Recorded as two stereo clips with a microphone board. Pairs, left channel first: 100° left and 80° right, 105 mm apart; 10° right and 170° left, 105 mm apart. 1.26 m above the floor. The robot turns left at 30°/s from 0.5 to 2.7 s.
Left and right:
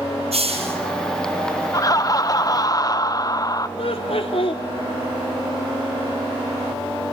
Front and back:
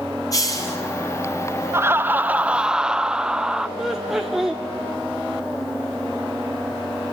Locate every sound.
0.3 s a hiss: 70° right, 6.5 m; by 0.8 s 75° right, 6.5 m
1.7 s laughter: 120° left, 0.6 m; by 3.7 s 90° left, 0.6 m
3.8 s laughter: 85° left, 0.9 m